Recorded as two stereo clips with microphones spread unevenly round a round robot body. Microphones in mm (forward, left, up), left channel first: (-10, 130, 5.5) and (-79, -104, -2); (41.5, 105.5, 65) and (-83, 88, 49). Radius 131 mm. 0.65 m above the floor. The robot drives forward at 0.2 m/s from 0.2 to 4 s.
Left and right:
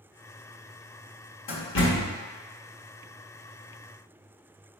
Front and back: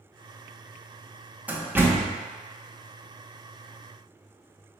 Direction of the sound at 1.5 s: 110° left.